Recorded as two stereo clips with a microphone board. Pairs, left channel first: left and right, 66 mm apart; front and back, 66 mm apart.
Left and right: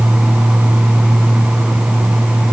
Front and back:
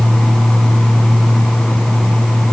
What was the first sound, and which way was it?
Only background noise.